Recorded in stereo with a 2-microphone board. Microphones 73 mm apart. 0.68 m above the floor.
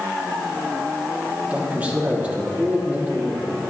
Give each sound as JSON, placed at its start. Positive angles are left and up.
{"t": 1.4, "sound": "a man speaking", "side_deg": -20, "distance_m": 1.3}